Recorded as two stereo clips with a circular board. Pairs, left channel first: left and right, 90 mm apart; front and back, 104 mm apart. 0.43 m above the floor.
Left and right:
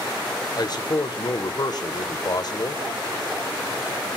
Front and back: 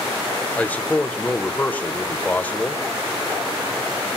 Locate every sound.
0.6 s a man speaking: 70° left, 1.2 m